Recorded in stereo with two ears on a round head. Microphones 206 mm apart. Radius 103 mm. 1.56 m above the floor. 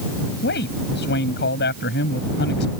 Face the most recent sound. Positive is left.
turn(degrees=50)  # may be behind; listen again after turning